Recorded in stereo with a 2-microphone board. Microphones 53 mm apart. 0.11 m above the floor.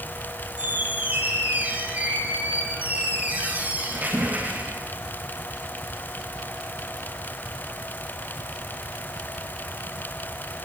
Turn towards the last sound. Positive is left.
turn(degrees=-30)  # may be behind; listen again after turning